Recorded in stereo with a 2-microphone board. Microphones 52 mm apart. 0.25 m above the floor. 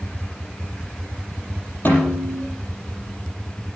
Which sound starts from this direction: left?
A snare drum, at 1.9 s.